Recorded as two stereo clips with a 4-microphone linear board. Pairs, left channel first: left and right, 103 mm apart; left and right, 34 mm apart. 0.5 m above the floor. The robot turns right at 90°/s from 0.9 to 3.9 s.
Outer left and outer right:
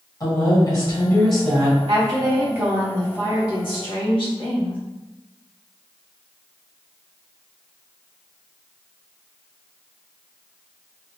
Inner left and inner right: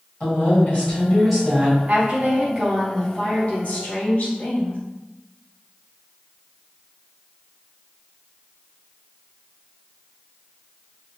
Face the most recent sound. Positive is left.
turn(degrees=90)